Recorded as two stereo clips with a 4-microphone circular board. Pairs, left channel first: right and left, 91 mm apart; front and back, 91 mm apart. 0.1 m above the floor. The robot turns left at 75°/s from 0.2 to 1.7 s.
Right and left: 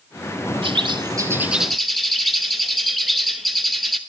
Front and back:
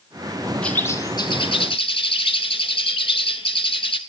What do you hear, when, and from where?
0.6 s a bird: 80° left, 0.8 m; by 4.0 s straight ahead, 0.8 m